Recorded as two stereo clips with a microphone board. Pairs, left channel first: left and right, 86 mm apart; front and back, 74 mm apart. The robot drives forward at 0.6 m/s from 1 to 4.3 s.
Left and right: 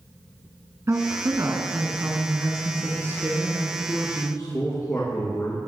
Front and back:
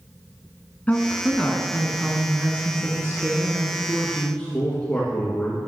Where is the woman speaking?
60° right, 1.3 m; by 3.6 s 145° right, 1.7 m.